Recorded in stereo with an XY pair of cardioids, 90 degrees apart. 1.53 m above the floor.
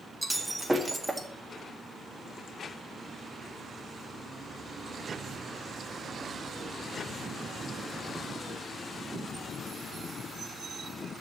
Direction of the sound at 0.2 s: 15° right.